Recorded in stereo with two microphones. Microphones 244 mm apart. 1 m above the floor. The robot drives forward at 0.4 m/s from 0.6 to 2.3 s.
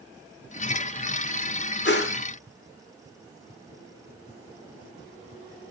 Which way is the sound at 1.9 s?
45° left (ahead or behind).